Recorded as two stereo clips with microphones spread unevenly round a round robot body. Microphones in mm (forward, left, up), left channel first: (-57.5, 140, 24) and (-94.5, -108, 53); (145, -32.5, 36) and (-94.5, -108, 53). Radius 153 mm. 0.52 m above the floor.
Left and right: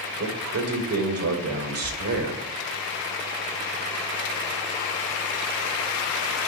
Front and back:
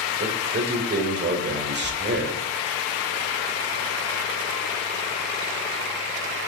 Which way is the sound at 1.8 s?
115° right.